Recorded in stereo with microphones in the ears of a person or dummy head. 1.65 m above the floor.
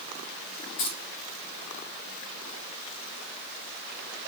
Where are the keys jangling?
50° left (ahead or behind), 1.1 m.